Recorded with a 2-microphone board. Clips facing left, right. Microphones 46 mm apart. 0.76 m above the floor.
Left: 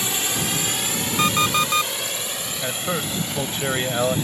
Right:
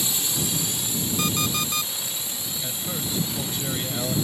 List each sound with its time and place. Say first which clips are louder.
0.0 s a drone: left 4 dB; 55° left (ahead or behind); by 4.3 s 50° left (ahead or behind)
1.2 s an alarm clock: left 9 dB; 45° left (ahead or behind)
2.6 s a man speaking: left 8 dB; 50° left (ahead or behind)